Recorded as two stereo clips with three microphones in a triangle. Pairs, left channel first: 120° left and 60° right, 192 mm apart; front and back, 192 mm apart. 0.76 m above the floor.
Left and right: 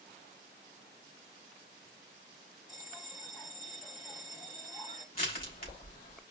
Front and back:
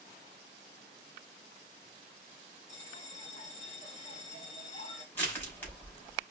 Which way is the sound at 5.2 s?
80° left.